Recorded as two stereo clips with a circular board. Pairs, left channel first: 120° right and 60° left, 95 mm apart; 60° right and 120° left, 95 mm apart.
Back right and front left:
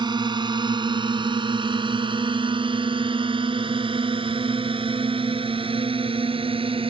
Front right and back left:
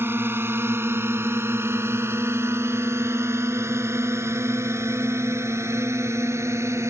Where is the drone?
60° left.